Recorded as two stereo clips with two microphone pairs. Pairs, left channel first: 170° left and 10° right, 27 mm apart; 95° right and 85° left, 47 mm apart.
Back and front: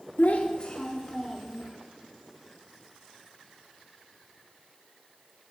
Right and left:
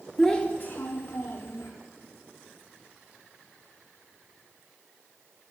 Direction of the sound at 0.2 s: Straight behind.